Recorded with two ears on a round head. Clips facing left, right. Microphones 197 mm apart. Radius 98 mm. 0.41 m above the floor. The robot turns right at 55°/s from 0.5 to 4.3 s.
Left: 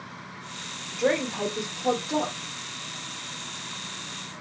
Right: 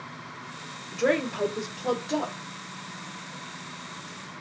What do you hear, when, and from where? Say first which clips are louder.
0.9 s a woman speaking: even; 20° right (ahead or behind), 0.8 m; by 2.4 s centre (ahead or behind), 0.8 m